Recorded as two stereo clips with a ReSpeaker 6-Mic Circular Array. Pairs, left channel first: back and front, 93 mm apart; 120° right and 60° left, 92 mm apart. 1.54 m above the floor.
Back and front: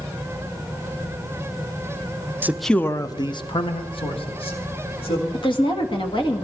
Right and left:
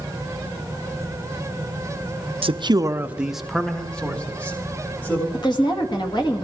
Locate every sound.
2.4 s a man speaking: 70° left, 0.6 m; by 5.2 s 170° left, 3 m
5.3 s a woman speaking: 155° right, 1.9 m